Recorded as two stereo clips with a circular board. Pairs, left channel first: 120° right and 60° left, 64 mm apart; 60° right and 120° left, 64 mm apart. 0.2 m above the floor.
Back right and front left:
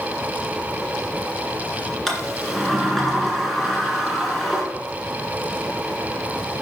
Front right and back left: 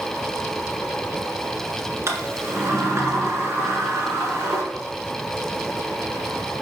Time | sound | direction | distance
2.1 | a sliding door | 155° left | 1.7 m